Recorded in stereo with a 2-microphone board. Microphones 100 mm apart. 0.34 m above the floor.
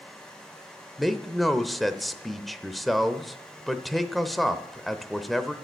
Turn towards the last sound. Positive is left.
turn(degrees=0)  # may be behind; listen again after turning